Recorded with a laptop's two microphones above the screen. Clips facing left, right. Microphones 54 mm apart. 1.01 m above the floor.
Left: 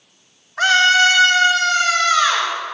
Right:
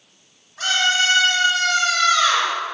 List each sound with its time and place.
0.6 s a scream: 75° left (ahead or behind), 3 m; by 2.5 s 25° left (ahead or behind), 3.5 m